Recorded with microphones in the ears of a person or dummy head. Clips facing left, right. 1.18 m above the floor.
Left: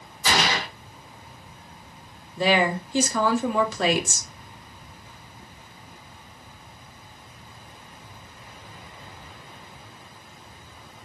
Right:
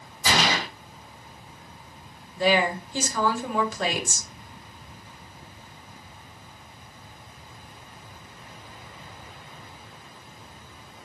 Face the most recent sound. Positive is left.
turn(degrees=60)  # may be behind; listen again after turning